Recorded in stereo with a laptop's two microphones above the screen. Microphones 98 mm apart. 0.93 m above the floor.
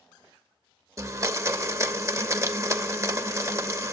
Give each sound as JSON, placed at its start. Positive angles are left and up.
{"t": 1.0, "sound": "a blender", "side_deg": -30, "distance_m": 0.6}